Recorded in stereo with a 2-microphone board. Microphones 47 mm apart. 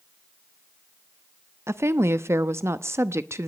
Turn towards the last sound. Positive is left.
turn(degrees=-70)  # may be behind; listen again after turning